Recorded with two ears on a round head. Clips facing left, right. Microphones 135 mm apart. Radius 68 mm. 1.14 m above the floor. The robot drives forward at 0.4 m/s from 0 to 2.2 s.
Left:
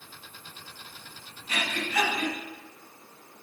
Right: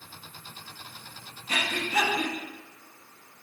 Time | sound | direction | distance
1.5 | breathing | 30° right (ahead or behind) | 0.5 m